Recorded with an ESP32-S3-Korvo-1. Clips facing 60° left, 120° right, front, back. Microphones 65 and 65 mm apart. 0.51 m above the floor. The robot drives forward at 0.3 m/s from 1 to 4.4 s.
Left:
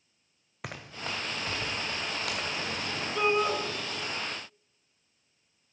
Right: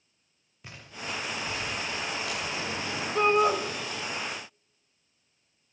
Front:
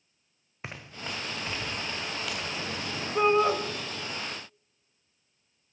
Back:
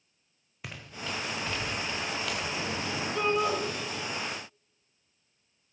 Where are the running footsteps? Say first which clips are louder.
Left 1 dB, even; 60° left, 1.9 m; by 2.8 s 95° left, 4 m.